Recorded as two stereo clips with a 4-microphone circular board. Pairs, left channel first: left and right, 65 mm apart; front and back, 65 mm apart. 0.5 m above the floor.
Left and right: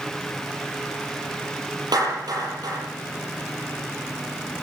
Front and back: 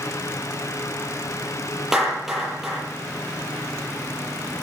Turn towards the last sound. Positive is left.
turn(degrees=-95)